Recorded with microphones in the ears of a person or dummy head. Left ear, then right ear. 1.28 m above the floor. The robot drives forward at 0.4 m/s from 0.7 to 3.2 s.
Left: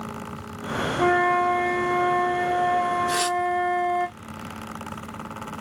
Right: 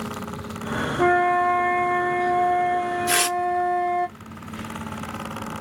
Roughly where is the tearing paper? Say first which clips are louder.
Right 2 dB; right.